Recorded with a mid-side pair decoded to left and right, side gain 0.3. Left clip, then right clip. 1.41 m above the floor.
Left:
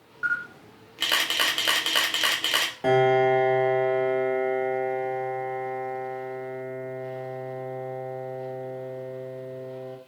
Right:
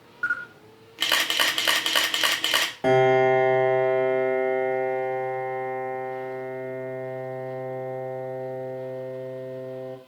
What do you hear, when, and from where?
0.2 s a camera shutter: 25° right, 0.8 m
2.8 s a piano: 35° right, 0.7 m